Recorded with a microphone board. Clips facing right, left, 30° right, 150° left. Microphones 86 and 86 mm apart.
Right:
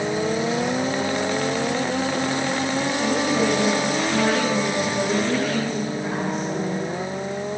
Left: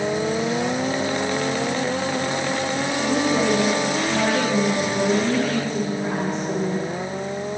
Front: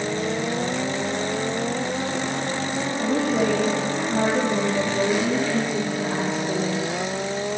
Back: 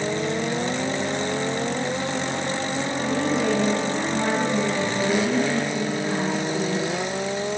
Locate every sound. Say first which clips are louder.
3.0 s a woman speaking: left 2 dB, front 2 dB; 35° left, 6.5 m